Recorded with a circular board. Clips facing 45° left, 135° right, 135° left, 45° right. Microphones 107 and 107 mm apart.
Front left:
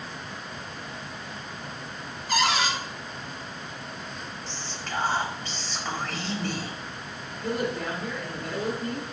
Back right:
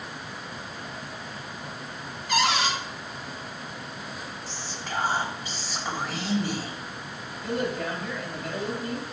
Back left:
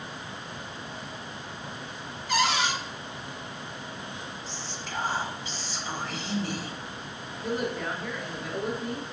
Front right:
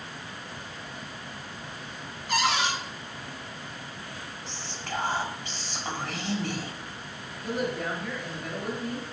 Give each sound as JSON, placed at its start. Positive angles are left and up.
{"t": 2.3, "sound": "a cupboard door", "azimuth_deg": -5, "distance_m": 1.1}
{"t": 4.5, "sound": "whispering", "azimuth_deg": -55, "distance_m": 1.0}
{"t": 7.4, "sound": "a woman speaking", "azimuth_deg": 45, "distance_m": 1.8}